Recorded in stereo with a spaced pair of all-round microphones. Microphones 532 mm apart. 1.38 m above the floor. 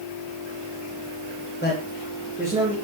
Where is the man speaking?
20° left (ahead or behind), 1.6 m; by 2.8 s 10° right (ahead or behind), 3 m.